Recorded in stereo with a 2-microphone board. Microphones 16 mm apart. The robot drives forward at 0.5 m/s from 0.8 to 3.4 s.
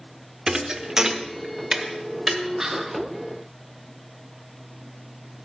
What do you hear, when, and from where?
0.5 s a thud: 35° right (ahead or behind), 0.7 m; by 2.4 s 15° right (ahead or behind), 1.4 m
2.6 s whispering: 25° right (ahead or behind), 1.1 m; by 3.0 s 20° right (ahead or behind), 1.3 m